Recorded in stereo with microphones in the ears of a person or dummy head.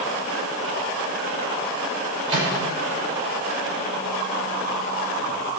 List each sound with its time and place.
2.3 s a microwave: 30° right (ahead or behind), 6 m